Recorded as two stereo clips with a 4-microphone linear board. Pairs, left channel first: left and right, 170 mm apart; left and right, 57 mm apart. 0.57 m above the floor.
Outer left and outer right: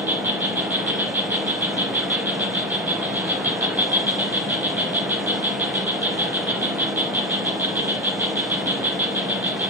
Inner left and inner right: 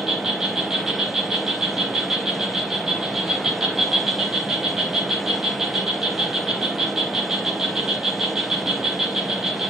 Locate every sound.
0.0 s an insect: 10° right (ahead or behind), 0.8 m